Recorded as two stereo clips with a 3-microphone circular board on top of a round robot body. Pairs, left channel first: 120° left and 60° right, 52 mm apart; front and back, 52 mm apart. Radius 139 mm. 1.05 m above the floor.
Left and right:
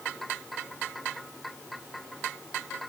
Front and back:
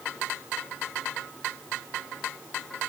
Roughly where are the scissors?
I don't hear scissors.